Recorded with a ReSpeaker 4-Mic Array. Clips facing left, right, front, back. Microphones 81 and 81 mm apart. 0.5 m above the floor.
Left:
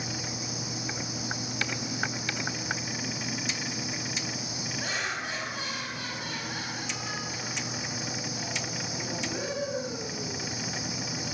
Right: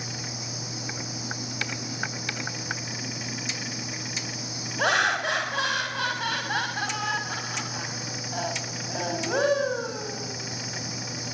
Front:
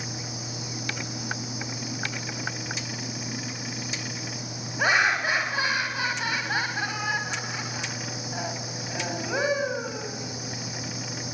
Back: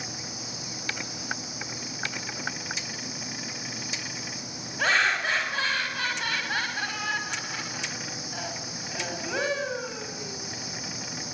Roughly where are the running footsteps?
I don't hear running footsteps.